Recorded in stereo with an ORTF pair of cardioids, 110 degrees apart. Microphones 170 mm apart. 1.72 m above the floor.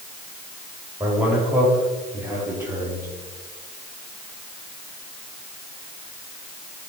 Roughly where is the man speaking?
Ahead.